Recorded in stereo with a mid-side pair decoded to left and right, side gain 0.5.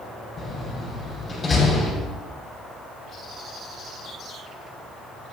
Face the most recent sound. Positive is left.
turn(degrees=35)